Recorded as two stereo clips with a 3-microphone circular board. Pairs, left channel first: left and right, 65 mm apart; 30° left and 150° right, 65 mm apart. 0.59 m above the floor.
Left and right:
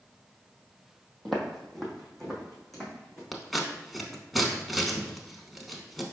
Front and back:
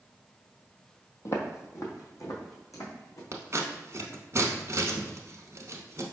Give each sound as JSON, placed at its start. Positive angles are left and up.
{"t": 1.2, "sound": "footsteps", "azimuth_deg": 5, "distance_m": 0.8}
{"t": 3.3, "sound": "scissors", "azimuth_deg": 180, "distance_m": 0.8}